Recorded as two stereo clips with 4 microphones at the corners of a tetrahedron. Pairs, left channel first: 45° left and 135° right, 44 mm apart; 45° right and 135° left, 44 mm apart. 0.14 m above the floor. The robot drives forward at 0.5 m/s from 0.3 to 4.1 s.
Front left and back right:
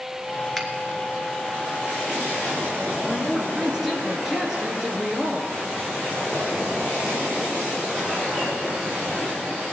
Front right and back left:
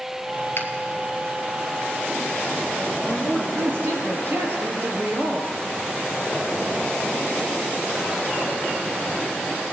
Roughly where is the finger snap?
Ahead right.